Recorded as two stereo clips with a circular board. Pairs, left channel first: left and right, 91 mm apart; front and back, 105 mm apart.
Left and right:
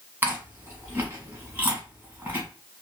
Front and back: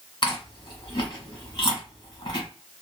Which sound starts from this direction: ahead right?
Chewing, at 0.2 s.